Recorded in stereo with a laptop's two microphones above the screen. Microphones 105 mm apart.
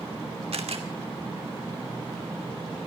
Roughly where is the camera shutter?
Right.